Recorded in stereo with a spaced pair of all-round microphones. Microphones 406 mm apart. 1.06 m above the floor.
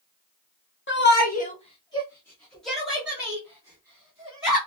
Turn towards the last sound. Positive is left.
turn(degrees=-10)  # may be behind; listen again after turning